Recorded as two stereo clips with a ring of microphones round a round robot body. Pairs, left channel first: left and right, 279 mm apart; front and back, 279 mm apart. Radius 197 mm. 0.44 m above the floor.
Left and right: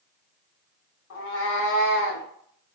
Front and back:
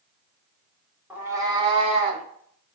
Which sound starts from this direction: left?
A cat meowing, at 1.1 s.